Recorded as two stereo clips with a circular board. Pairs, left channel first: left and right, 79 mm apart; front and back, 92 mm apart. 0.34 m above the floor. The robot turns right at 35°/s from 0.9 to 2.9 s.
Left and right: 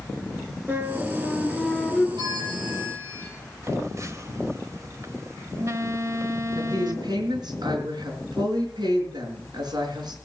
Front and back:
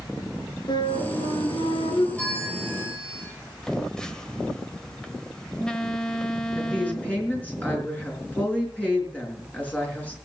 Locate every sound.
0.7 s a flute: 25° right, 4 m; by 2.1 s 15° left, 4 m
2.2 s a bell: 80° right, 8.5 m; by 3.2 s 50° right, 8.5 m
3.6 s a phone buzzing: 80° right, 1.3 m
6.6 s a woman speaking: 75° right, 5 m